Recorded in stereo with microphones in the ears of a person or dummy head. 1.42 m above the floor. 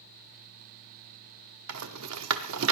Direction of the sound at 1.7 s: 90° right.